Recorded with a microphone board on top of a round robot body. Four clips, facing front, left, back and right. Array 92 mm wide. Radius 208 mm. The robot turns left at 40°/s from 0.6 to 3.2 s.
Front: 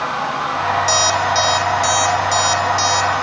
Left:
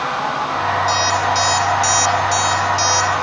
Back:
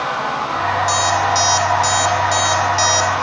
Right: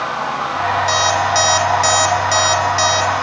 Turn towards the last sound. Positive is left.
turn(degrees=-135)